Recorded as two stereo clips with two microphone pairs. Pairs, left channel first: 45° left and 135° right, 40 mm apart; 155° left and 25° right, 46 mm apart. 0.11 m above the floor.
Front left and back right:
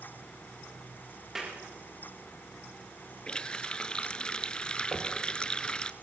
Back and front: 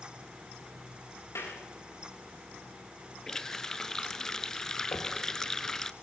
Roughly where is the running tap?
Left.